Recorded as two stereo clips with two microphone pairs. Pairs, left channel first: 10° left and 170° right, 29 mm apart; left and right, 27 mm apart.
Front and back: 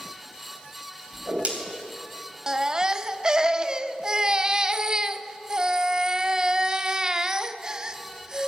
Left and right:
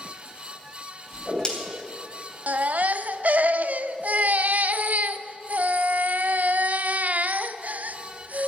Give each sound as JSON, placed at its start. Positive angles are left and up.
{"t": 1.1, "sound": "a whoosh", "azimuth_deg": 155, "distance_m": 3.0}
{"t": 2.5, "sound": "a baby crying", "azimuth_deg": -105, "distance_m": 0.6}